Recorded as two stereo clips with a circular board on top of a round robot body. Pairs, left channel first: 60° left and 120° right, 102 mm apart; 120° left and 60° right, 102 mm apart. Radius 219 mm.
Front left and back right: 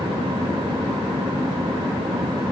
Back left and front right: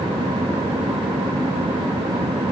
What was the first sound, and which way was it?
Only background noise.